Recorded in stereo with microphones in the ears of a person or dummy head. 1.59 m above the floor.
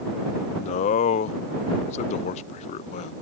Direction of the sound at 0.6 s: 45° left (ahead or behind).